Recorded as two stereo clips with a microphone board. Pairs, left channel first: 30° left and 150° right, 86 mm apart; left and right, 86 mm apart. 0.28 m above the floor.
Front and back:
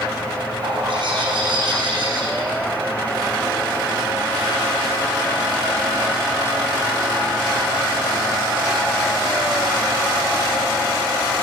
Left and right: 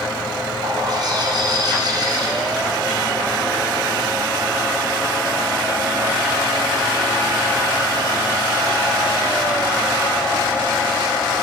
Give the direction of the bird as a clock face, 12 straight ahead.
4 o'clock.